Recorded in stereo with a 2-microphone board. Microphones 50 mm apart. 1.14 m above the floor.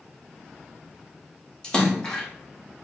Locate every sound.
1.6 s a splash: 15° left (ahead or behind), 0.8 m